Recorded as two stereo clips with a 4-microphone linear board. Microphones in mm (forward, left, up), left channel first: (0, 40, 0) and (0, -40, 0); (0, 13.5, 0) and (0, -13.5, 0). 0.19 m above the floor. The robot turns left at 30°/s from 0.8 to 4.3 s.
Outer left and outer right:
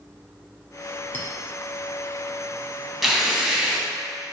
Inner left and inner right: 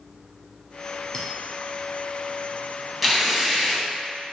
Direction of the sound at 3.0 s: 5° right (ahead or behind).